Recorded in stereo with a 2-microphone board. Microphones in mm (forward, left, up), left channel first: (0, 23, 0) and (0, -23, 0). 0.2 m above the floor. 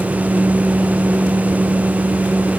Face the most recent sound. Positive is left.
No sound to turn to.